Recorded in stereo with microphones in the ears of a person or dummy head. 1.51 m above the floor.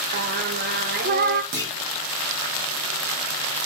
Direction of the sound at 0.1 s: 40° right (ahead or behind).